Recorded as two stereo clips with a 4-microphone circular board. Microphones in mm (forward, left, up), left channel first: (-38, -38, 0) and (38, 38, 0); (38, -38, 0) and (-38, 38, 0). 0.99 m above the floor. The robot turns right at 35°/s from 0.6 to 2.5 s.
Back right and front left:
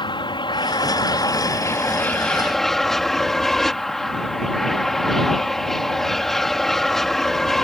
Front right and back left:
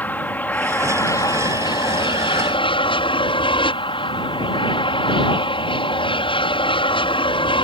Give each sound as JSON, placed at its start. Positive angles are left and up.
{"t": 0.0, "sound": "an aircraft", "azimuth_deg": -115}